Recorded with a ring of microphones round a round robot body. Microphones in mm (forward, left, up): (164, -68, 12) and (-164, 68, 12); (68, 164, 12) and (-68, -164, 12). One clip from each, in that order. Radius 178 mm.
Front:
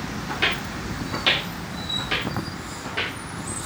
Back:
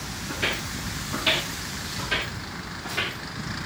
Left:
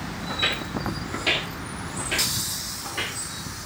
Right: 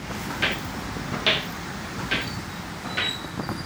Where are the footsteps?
55° right, 2 m; by 3.2 s 100° right, 4.5 m.